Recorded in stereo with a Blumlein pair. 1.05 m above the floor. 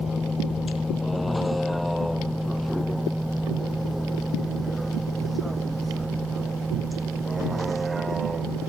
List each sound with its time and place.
0.0 s a vehicle: 15° left; by 8.7 s 10° right